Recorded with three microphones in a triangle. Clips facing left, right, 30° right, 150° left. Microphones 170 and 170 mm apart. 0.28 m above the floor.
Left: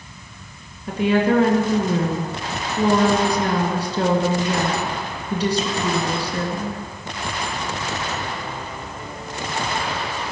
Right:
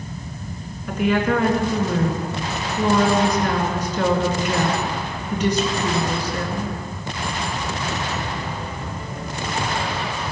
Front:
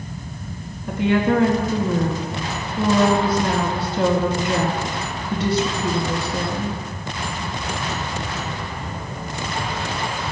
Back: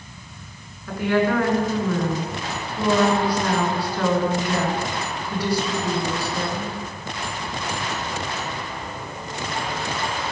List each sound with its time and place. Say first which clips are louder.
0.9 s a woman speaking: left 2 dB, front 2 dB; 35° left, 3 m